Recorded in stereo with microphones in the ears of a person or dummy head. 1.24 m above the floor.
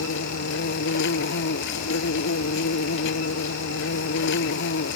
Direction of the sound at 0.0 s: 65° left (ahead or behind).